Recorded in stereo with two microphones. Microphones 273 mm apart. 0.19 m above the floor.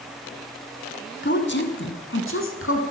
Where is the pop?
I don't hear a pop.